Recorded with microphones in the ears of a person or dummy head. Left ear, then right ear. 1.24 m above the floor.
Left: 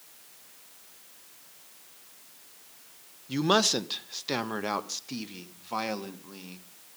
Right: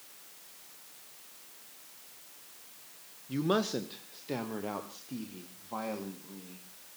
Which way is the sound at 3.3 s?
25° left (ahead or behind).